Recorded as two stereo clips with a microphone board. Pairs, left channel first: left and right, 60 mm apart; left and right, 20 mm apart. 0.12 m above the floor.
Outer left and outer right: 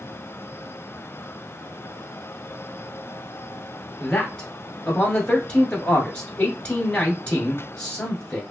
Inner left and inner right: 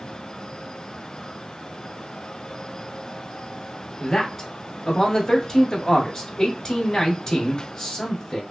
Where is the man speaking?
20° left (ahead or behind), 1.3 m.